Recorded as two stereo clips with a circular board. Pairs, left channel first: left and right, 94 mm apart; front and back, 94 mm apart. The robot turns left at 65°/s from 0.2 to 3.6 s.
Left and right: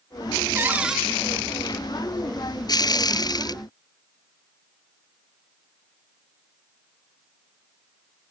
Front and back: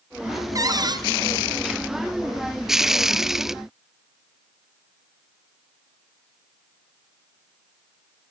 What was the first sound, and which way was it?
A cupboard door, 145° right.